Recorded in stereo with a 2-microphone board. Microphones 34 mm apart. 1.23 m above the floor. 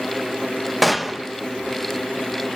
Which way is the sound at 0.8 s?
5° right (ahead or behind).